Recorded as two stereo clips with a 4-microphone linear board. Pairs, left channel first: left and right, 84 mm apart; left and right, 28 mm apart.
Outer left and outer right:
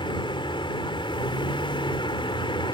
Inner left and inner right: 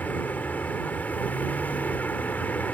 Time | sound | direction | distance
0.0 | a vehicle | 80° left | ?